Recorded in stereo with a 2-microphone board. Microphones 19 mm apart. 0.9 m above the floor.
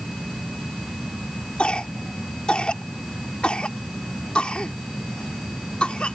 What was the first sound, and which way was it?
A cough, 75° left (ahead or behind).